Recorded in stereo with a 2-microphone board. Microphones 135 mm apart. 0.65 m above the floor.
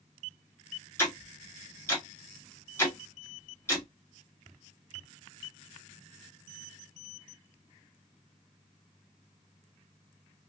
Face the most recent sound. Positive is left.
turn(degrees=15)  # may be behind; listen again after turning